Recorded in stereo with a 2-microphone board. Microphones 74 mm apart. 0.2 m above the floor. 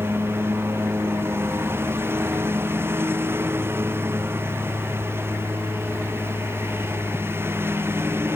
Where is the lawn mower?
35° right (ahead or behind).